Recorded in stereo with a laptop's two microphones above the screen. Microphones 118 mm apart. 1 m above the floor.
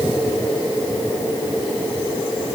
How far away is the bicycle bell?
No bicycle bell in this recording.